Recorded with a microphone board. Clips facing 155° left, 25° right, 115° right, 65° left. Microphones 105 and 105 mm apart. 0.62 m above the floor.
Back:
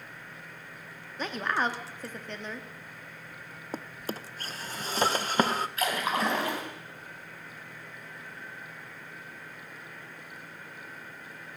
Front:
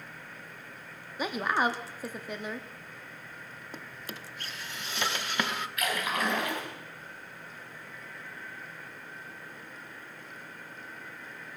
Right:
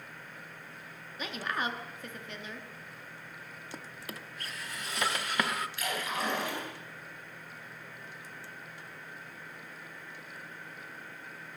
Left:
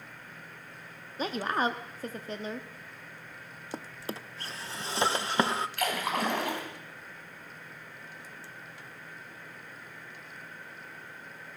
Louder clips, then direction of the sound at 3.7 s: Back 8 dB, left 7 dB; 120° left.